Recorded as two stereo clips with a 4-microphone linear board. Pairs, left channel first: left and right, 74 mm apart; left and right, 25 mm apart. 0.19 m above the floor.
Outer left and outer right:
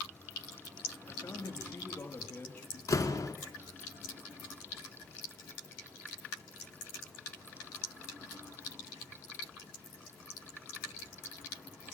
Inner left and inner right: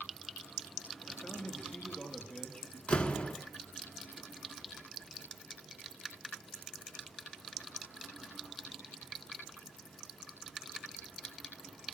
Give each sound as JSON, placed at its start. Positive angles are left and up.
{"t": 1.1, "sound": "a man speaking", "side_deg": 40, "distance_m": 3.0}
{"t": 2.9, "sound": "a door slam", "side_deg": 50, "distance_m": 1.5}